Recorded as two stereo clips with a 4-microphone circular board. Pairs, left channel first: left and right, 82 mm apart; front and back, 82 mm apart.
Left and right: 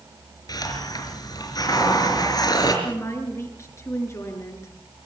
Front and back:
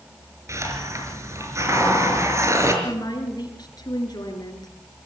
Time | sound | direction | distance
0.5 | a hiss | 130° left | 5 m
2.8 | a woman speaking | 40° left | 6.5 m